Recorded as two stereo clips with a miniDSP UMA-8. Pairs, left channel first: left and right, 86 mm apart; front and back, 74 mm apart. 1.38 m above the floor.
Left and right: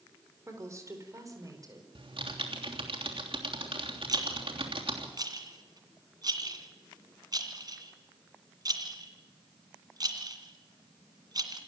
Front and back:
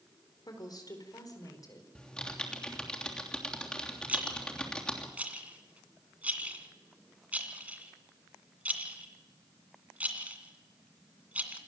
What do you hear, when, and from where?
0.5 s a woman speaking: 30° right, 4 m; by 1.9 s 40° right, 5 m
1.9 s typing on a keyboard: 80° right, 3 m
4.1 s a rattle: 115° right, 2 m